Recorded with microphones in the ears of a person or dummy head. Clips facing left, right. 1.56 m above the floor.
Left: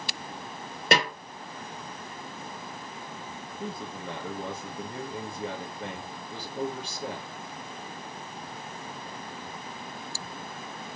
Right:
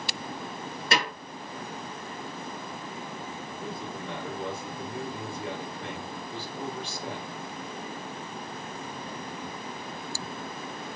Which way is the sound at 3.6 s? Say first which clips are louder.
Left 1 dB; 60° left (ahead or behind).